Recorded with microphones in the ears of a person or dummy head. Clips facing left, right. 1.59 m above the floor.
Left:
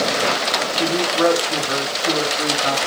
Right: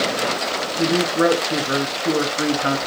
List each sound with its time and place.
0.8 s a man speaking: 25° right (ahead or behind), 3 m